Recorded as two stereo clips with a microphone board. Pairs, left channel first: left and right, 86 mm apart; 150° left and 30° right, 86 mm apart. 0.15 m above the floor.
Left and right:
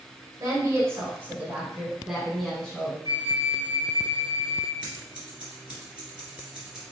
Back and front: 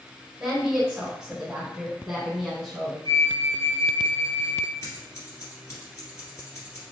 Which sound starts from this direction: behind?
Scissors, at 4.8 s.